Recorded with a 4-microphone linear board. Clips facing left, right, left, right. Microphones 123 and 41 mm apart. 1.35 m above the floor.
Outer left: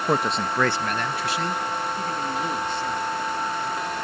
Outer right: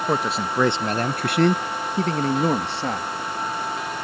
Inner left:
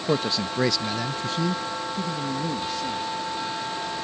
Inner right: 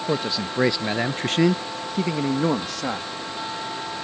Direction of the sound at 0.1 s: 5° left (ahead or behind).